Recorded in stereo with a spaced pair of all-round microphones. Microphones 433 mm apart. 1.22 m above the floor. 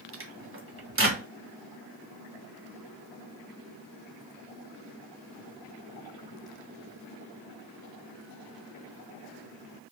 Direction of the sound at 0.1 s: 30° right (ahead or behind).